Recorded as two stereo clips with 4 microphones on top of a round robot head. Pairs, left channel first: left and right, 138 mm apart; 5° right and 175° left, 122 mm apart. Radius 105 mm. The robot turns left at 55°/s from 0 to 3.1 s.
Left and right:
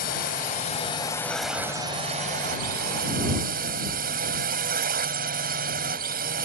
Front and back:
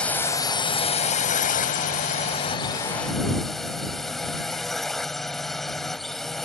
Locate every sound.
0.0 s a drone: 80° left; by 6.5 s 90° right